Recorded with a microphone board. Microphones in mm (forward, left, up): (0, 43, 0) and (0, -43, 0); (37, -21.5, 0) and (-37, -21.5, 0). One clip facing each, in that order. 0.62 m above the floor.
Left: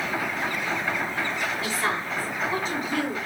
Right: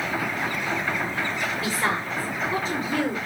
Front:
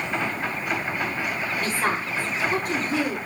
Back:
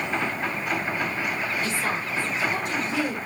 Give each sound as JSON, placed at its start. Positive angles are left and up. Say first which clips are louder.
{"t": 1.6, "sound": "a woman speaking", "louder": "right 1 dB, front 2 dB", "azimuth_deg": -40, "distance_m": 9.5}